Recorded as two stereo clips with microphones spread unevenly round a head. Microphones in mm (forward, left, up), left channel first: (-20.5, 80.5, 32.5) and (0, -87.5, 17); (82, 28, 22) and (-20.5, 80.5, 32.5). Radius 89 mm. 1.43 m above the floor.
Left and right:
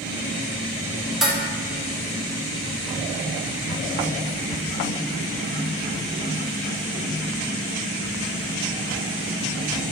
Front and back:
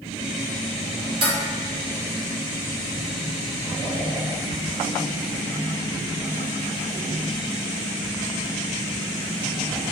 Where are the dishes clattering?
175° right, 0.6 m.